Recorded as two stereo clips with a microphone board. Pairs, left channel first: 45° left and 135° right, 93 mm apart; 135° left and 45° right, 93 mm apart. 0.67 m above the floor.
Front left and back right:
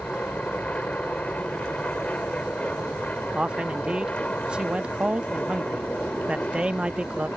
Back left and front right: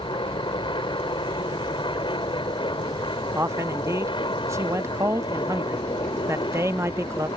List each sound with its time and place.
0.0 s an aircraft: 120° left
3.3 s a man speaking: 70° right